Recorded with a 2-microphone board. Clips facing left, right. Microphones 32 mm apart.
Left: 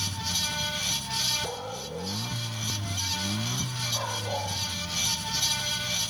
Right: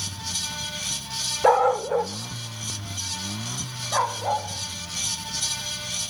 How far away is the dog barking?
About 0.7 m.